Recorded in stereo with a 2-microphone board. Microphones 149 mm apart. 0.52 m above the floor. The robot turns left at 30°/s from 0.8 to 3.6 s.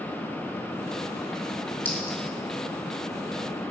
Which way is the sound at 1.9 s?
10° left (ahead or behind).